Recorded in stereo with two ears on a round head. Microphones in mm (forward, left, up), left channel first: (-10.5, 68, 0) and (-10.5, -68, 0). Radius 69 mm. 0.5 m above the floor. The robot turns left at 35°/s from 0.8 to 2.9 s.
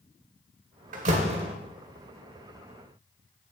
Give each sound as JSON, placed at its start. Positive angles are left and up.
{"t": 0.9, "sound": "a door slam", "side_deg": -55, "distance_m": 1.3}